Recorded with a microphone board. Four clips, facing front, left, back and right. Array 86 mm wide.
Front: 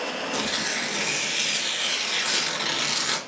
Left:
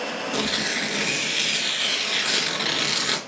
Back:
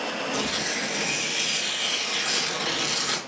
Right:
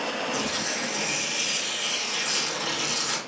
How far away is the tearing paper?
About 0.7 m.